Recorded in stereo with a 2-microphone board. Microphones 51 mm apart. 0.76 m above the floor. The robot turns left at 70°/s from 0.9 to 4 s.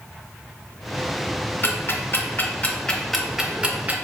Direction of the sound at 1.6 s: 45° left (ahead or behind).